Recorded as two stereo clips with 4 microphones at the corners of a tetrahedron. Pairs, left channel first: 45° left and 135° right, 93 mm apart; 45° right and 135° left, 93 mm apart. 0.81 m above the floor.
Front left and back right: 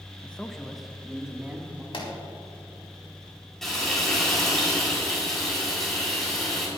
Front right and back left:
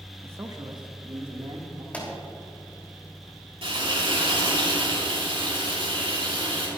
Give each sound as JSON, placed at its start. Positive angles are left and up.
{"t": 0.2, "sound": "a man speaking", "azimuth_deg": 105, "distance_m": 0.8}
{"t": 1.9, "sound": "a pop", "azimuth_deg": 30, "distance_m": 3.0}
{"t": 3.6, "sound": "frying", "azimuth_deg": 130, "distance_m": 5.0}